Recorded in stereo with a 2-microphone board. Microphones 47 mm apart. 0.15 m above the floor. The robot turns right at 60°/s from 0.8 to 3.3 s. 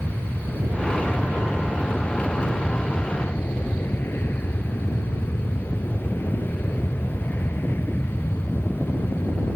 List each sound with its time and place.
0.0 s an aircraft: 95° right; by 9.6 s 55° left